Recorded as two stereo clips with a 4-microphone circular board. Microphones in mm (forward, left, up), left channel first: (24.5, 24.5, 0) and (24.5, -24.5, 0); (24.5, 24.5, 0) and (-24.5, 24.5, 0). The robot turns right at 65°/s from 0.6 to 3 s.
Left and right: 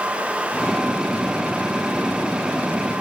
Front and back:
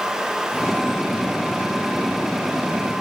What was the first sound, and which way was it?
Only background noise.